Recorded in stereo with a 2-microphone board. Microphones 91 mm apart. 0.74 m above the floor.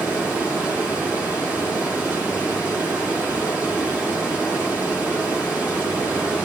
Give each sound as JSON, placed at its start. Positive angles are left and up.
{"t": 0.0, "sound": "running water", "side_deg": -20, "distance_m": 4.0}